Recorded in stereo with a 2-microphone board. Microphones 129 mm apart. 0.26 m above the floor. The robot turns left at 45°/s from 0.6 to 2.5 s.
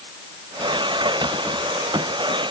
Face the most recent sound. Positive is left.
No sound to turn to.